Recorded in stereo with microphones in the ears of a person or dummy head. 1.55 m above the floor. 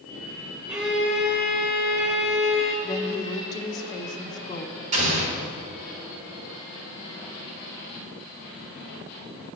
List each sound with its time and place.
0.7 s a violin: 5° right (ahead or behind), 1.8 m
2.8 s a woman speaking: 20° left (ahead or behind), 0.9 m
4.9 s an explosion: 45° right (ahead or behind), 4 m